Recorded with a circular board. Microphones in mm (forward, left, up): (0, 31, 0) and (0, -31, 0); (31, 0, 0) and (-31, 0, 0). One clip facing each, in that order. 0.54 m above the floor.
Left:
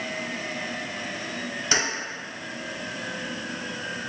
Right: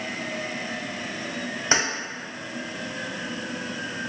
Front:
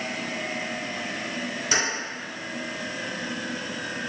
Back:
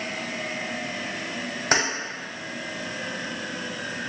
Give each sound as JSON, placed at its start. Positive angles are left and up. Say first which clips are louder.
{"t": 1.7, "sound": "keys jangling", "louder": "right 2 dB, back 4 dB", "azimuth_deg": -150, "distance_m": 0.9}